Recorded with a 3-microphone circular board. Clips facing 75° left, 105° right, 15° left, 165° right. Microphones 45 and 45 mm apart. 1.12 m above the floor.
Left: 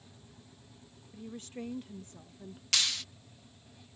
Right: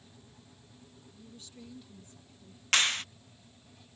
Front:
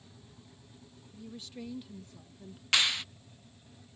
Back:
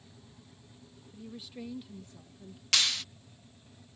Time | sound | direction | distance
1.1 | a woman speaking | 120° left | ?
2.7 | a clap | 55° right | ?